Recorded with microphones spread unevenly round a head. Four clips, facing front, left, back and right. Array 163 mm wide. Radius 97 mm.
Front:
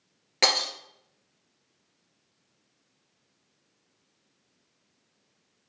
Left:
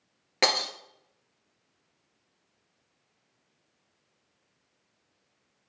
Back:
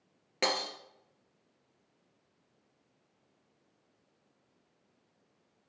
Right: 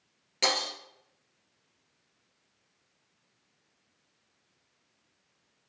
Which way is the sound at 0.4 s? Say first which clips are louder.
Left 3 dB, front 4 dB; 80° left.